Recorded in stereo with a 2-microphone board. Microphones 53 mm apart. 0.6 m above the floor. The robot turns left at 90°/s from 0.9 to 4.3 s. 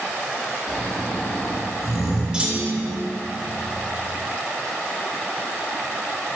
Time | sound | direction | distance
0.7 | snoring | centre (ahead or behind) | 2.0 m
2.3 | a clunk | 15° right | 0.9 m